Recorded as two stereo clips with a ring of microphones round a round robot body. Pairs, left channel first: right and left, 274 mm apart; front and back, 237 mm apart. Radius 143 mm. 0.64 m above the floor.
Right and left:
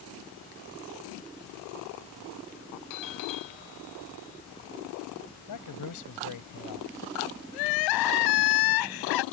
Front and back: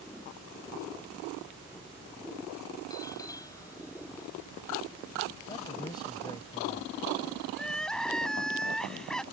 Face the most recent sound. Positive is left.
turn(degrees=-85)